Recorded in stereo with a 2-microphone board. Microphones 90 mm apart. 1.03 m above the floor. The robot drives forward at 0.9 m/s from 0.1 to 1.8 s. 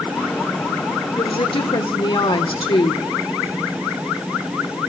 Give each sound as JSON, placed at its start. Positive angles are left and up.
{"t": 1.2, "sound": "a woman speaking", "side_deg": 70, "distance_m": 3.5}